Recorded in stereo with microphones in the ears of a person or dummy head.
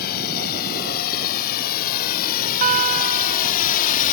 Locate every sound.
0.0 s a drone: 55° left (ahead or behind); by 4.1 s 45° left (ahead or behind)
2.6 s a guitar: 40° right (ahead or behind)